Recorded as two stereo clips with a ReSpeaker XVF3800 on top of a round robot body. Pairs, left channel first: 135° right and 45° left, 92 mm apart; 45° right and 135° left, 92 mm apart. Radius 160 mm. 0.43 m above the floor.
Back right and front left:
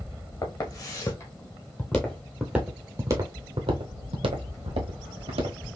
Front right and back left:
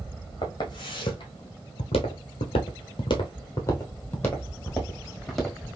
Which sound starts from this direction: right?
Footsteps, at 0.4 s.